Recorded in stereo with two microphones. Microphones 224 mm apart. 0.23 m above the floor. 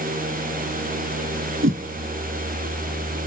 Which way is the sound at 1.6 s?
65° right (ahead or behind).